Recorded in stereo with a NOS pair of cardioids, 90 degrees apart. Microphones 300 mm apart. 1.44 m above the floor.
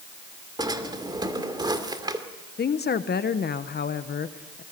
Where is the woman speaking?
35° left, 1.1 m.